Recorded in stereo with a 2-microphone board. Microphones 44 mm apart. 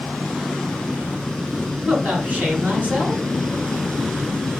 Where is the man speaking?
25° right (ahead or behind), 2.5 m.